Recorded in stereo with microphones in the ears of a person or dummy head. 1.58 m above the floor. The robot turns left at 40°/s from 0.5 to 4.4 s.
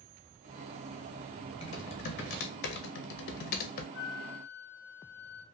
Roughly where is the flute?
Left.